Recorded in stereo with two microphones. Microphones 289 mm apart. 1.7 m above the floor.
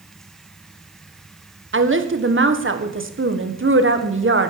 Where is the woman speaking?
45° right (ahead or behind), 1.6 m.